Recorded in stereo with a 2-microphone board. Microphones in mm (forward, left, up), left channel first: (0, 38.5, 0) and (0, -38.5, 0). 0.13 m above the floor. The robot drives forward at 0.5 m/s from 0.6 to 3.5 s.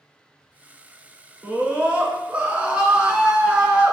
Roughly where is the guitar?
I don't hear a guitar.